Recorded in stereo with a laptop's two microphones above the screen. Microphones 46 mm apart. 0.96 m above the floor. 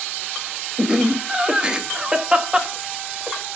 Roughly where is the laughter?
Centre.